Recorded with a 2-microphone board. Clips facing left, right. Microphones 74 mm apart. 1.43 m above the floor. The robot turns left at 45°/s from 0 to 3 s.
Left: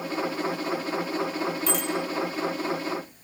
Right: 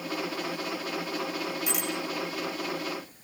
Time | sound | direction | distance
1.7 | a bicycle bell | 10° right (ahead or behind) | 5.5 m